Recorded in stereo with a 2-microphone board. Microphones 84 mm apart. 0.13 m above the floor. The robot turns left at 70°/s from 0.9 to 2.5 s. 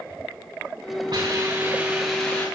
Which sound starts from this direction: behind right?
A hiss, at 1.1 s.